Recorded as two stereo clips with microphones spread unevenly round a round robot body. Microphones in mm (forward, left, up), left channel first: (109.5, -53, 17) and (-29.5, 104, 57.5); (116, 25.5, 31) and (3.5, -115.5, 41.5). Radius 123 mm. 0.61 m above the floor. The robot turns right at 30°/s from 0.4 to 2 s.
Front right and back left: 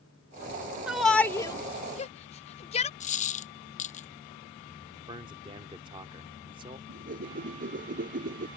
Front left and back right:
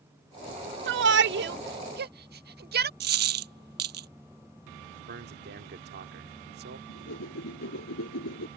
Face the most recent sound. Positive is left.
turn(degrees=80)